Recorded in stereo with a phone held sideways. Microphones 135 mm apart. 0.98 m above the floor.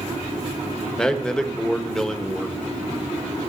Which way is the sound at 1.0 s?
5° left (ahead or behind).